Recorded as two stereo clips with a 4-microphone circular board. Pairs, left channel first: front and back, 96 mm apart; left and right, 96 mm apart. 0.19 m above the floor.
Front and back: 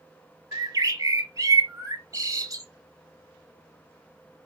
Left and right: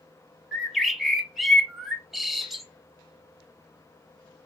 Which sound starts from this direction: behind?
A bird, at 0.5 s.